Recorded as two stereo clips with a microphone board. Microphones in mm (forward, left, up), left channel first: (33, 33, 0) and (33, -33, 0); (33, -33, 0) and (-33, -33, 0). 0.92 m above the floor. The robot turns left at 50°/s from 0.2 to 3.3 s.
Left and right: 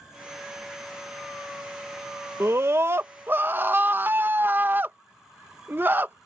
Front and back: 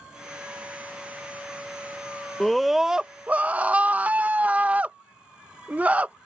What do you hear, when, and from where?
2.4 s a scream: 80° right; by 6.2 s 125° right